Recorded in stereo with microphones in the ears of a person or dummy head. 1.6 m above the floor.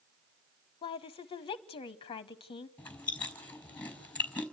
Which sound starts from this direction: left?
A woman speaking, at 0.8 s.